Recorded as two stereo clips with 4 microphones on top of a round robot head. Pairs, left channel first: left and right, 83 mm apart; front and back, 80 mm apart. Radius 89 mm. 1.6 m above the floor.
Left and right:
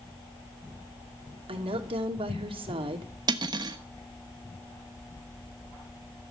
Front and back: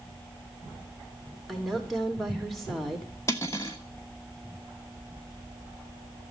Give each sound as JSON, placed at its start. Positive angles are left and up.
{"t": 1.5, "sound": "a woman speaking", "azimuth_deg": -90, "distance_m": 3.0}
{"t": 3.3, "sound": "cutlery clinking", "azimuth_deg": -65, "distance_m": 1.2}